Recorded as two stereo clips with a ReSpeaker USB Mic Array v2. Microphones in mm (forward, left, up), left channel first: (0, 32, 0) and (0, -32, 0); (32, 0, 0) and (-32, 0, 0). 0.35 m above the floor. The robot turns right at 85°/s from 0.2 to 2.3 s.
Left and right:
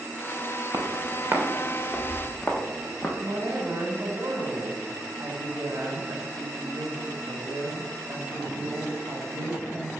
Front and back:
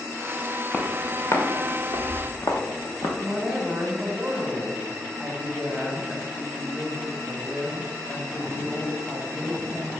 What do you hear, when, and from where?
0.7 s footsteps: 75° right, 1.9 m; by 3.1 s 20° left, 2 m
3.2 s a woman speaking: 100° right, 1.8 m